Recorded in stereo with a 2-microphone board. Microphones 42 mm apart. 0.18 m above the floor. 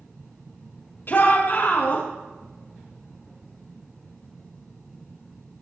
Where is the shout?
55° left (ahead or behind), 5.5 m.